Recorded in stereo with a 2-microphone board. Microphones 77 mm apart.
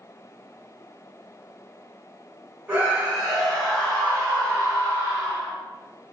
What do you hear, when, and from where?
2.7 s a scream: 20° right (ahead or behind), 1.7 m; by 5.5 s 50° left (ahead or behind), 2 m